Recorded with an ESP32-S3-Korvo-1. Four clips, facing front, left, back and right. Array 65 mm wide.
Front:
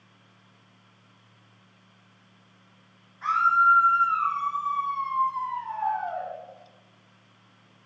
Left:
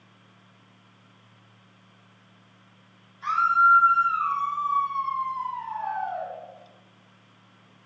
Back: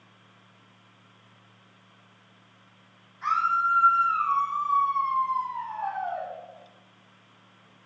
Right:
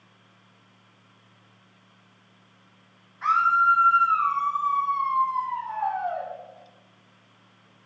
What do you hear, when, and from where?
3.2 s a scream: 85° right, 6 m